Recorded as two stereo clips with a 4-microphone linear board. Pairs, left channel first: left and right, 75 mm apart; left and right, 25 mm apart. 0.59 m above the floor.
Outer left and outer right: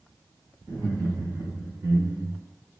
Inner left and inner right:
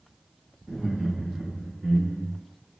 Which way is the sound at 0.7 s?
60° right (ahead or behind).